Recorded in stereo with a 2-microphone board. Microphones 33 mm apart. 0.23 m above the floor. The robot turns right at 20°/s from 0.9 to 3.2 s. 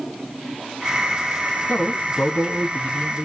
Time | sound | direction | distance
1.7 | a man speaking | 75° left | 2.5 m